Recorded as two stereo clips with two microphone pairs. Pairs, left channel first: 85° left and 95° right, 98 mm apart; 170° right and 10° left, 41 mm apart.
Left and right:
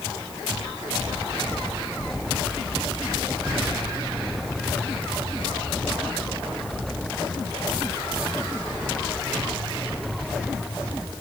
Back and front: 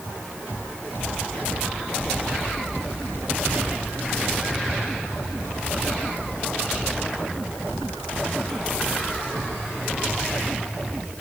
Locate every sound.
Only background noise.